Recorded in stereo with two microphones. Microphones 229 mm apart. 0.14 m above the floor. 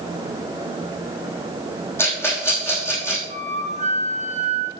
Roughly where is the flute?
Right.